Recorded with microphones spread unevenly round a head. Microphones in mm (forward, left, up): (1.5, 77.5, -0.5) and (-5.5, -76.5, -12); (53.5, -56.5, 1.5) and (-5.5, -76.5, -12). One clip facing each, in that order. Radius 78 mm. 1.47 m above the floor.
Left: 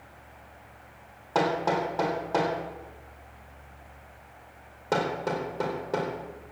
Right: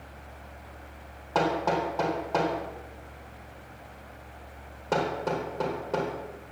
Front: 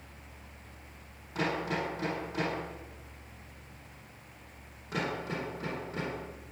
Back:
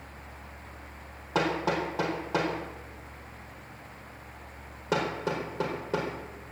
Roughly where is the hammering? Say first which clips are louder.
Even, back 5 dB; behind.